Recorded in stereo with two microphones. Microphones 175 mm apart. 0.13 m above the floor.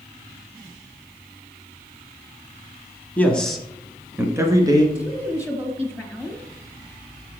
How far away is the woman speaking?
About 1.7 m.